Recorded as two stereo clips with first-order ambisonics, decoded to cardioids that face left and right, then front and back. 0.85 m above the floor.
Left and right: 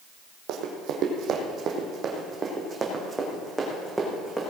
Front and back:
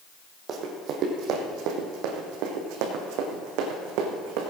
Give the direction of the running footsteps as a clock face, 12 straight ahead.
4 o'clock.